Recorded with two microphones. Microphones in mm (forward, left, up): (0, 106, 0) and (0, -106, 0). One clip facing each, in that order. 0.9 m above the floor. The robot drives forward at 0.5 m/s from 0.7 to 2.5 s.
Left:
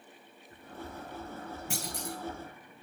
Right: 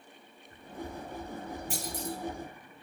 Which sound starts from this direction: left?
A clunk, at 1.7 s.